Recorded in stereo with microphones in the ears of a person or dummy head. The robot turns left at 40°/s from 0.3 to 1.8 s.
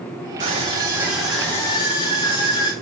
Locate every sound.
0.4 s a scream: 145° right, 6.5 m; by 2.7 s 160° left, 6.5 m